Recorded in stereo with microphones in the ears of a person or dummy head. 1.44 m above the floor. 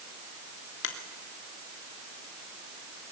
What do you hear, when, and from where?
0.8 s a finger snap: 60° left (ahead or behind), 3 m